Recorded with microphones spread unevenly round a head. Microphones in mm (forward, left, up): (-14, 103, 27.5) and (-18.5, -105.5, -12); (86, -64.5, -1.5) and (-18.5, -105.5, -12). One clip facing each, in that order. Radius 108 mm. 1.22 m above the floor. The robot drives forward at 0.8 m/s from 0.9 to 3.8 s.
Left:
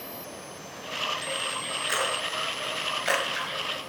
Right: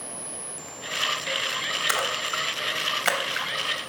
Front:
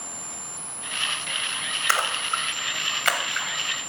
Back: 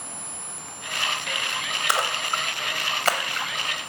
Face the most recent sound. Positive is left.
turn(degrees=-120)